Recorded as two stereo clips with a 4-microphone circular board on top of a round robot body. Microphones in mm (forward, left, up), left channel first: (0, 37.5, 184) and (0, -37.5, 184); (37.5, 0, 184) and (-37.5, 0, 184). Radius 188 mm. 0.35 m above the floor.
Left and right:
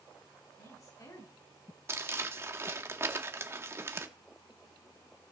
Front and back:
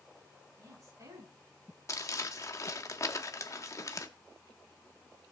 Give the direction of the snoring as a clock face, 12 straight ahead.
I don't hear snoring.